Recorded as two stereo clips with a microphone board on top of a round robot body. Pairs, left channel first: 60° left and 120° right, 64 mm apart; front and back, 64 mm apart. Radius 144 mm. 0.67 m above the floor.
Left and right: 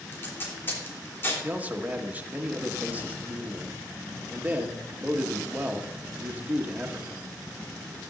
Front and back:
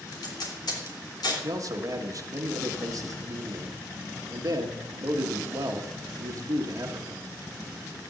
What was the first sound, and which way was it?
Tape being pulled, 5° left.